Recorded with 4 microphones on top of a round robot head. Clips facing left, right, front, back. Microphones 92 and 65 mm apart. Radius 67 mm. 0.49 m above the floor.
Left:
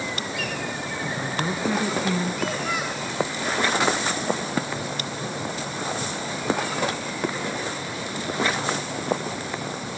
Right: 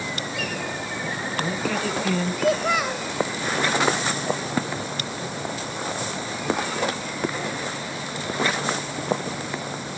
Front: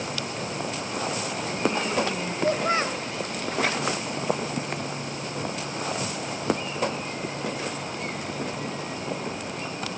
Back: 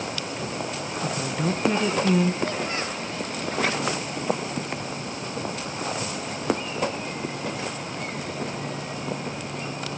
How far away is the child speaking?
About 2 m.